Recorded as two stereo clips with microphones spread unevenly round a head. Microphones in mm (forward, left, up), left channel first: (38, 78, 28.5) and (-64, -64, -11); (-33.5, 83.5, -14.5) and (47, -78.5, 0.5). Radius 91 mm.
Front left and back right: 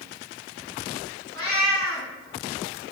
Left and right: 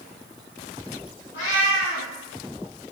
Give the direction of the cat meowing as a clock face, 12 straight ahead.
8 o'clock.